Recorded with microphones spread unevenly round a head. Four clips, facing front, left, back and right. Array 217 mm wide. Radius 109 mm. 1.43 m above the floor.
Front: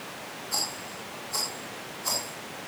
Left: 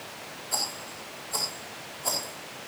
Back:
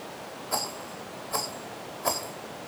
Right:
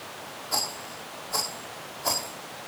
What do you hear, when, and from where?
0.5 s a rattle: 165° right, 4.5 m